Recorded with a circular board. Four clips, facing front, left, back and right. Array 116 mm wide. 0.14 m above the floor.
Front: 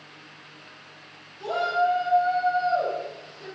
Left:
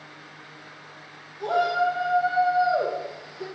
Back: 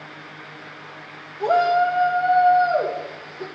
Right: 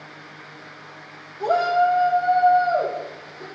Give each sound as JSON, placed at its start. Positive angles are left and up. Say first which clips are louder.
{"t": 1.4, "sound": "a shout", "louder": "right 4 dB, back 6 dB", "azimuth_deg": -155, "distance_m": 3.5}